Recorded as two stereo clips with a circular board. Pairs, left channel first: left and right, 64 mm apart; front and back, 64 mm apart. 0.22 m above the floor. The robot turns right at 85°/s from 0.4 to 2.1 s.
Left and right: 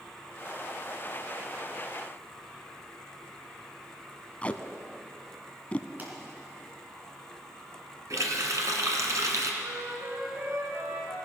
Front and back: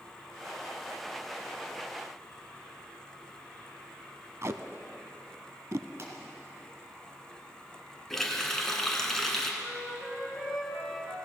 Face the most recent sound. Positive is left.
turn(degrees=-90)